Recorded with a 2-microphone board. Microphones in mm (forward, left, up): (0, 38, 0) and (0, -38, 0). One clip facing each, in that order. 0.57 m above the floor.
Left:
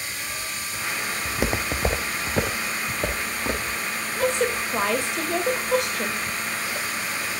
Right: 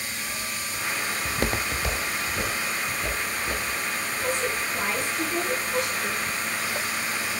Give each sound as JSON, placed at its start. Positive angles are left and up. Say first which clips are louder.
{"t": 1.2, "sound": "footsteps", "louder": "left 2 dB", "side_deg": -10, "distance_m": 0.9}
{"t": 4.2, "sound": "a woman speaking", "louder": "left 6 dB", "side_deg": 70, "distance_m": 2.5}